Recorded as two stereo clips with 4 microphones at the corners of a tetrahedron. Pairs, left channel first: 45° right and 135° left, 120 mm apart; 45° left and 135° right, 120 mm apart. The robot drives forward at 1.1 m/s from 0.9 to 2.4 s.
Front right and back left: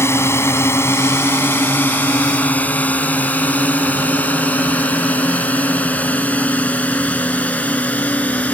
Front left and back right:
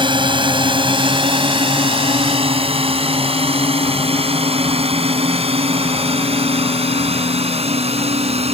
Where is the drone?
105° right; by 8.6 s 120° right.